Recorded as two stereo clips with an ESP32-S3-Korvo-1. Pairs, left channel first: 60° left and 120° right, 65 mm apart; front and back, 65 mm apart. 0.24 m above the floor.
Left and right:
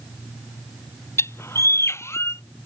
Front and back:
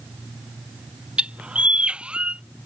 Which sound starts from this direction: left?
A bird, at 1.2 s.